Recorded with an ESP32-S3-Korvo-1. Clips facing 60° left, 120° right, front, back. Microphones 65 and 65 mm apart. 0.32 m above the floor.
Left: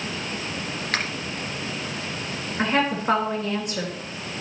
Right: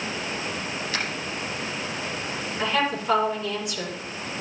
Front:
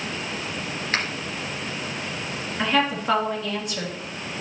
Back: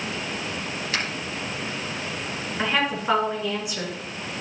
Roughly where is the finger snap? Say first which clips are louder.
Left 4 dB, front 3 dB; ahead left.